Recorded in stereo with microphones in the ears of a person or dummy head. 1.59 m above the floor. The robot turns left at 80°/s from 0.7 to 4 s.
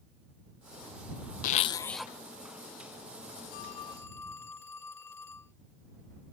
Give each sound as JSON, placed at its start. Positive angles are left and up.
{"t": 1.4, "sound": "a zipper", "azimuth_deg": 55}
{"t": 3.5, "sound": "a phone ringing", "azimuth_deg": 60}